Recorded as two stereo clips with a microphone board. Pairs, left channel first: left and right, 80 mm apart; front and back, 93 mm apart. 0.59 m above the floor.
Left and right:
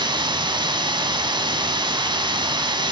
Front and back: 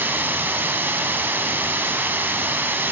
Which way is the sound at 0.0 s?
110° right.